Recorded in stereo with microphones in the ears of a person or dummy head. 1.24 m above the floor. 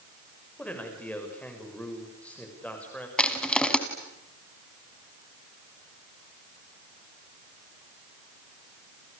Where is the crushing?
10° left (ahead or behind), 2.5 m.